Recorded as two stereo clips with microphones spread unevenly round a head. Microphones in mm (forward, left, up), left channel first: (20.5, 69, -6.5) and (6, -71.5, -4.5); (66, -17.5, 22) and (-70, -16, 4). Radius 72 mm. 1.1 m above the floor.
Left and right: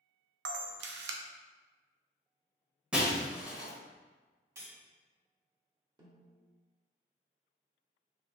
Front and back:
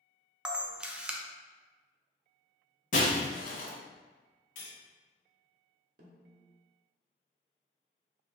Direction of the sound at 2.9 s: 15° right.